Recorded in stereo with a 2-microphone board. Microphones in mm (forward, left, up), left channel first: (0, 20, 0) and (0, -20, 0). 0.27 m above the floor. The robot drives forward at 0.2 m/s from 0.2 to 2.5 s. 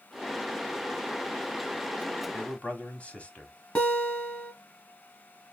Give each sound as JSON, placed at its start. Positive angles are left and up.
{"t": 2.3, "sound": "a man speaking", "side_deg": 30, "distance_m": 1.5}
{"t": 3.8, "sound": "a guitar", "side_deg": 35, "distance_m": 2.0}